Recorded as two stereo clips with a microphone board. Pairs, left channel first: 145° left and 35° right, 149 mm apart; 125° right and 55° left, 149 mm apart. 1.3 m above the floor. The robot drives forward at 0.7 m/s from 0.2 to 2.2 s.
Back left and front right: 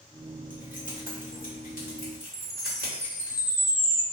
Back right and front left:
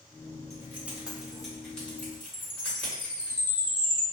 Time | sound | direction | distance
0.5 | keys jangling | 125° left | 1.1 m
2.3 | a chime | 145° right | 0.8 m